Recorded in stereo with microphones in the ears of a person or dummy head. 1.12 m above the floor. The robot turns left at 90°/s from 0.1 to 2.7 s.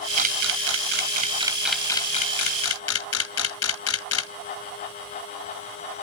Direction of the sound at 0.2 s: 40° right (ahead or behind).